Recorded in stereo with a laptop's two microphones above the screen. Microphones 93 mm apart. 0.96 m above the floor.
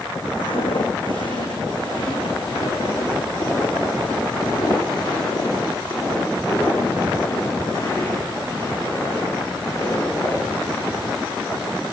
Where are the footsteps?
65° left (ahead or behind), 3 m; by 10.3 s 30° left (ahead or behind), 9.5 m.